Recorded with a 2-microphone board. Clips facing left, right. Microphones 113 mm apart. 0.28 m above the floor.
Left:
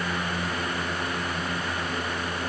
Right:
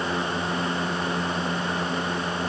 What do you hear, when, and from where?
Only background noise.